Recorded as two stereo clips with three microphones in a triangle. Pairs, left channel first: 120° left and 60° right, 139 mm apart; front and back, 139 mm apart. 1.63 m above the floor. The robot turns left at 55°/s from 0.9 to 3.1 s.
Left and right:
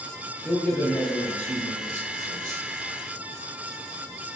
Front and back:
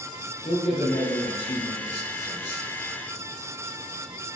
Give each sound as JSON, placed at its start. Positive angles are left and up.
{"t": 0.5, "sound": "a man speaking", "azimuth_deg": 40, "distance_m": 1.6}